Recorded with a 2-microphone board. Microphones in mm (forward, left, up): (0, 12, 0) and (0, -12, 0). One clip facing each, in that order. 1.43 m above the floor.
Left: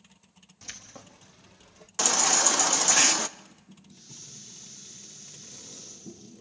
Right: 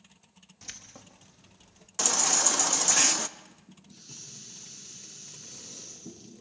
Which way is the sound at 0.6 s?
Centre (ahead or behind).